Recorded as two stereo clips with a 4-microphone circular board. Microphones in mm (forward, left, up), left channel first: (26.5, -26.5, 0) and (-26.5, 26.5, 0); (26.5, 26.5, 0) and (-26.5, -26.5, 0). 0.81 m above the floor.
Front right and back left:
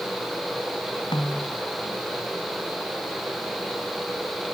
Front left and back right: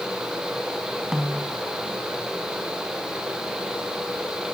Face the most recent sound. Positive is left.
turn(degrees=-55)